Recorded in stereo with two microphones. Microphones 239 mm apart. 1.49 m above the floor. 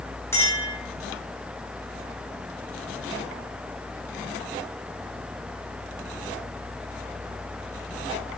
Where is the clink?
10° left (ahead or behind), 1.3 m.